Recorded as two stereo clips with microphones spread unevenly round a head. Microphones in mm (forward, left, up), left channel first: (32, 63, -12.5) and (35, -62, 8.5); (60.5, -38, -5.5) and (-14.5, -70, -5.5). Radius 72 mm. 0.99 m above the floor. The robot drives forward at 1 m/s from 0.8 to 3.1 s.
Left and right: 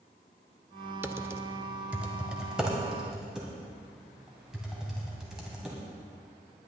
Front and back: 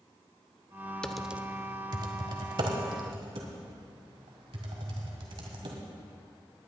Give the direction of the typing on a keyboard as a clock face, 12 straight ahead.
2 o'clock.